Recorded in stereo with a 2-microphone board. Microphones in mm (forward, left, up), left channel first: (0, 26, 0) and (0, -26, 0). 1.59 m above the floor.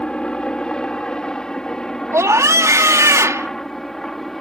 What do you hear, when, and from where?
0.0 s a helicopter: 15° left (ahead or behind); by 4.4 s 5° left (ahead or behind)
2.1 s a scream: 85° right